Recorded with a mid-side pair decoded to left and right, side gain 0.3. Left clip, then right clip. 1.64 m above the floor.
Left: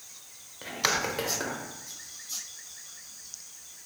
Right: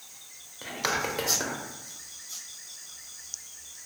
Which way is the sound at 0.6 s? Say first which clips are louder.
Left 1 dB; straight ahead.